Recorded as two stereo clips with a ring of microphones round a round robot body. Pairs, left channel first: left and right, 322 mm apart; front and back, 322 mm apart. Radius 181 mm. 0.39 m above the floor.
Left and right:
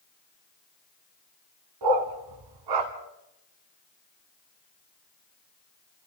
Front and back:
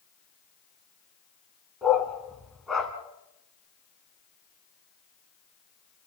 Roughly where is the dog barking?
Right.